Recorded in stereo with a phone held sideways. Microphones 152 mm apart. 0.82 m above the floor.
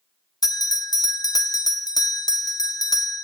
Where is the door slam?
No door slam in this recording.